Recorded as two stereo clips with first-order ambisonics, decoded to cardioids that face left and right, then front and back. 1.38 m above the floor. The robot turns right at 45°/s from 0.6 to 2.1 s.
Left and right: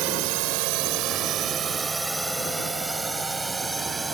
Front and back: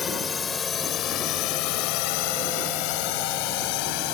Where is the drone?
65° right; by 4.2 s 10° right.